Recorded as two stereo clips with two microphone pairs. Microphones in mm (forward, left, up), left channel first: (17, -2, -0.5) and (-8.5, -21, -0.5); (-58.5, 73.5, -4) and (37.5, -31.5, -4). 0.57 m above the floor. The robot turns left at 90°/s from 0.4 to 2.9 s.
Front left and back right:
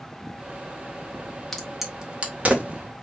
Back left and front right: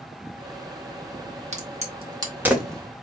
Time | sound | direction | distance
1.5 | a crack | 40° right | 1.6 m